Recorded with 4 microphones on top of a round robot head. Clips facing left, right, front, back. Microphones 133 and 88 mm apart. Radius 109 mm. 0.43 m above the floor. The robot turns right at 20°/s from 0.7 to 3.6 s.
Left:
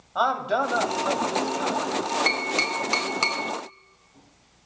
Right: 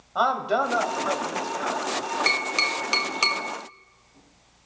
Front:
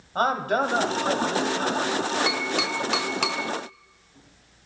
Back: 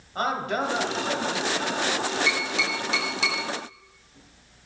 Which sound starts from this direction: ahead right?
Tapping, at 2.3 s.